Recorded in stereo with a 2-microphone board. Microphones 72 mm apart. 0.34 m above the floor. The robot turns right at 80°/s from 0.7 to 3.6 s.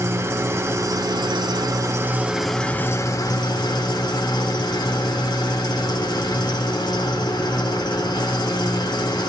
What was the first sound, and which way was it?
An engine running, 140° right.